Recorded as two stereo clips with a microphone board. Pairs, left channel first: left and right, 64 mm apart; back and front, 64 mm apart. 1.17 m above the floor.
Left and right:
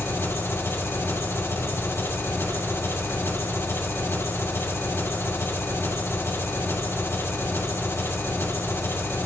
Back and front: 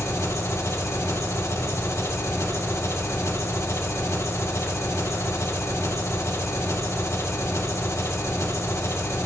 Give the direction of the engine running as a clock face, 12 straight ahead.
7 o'clock.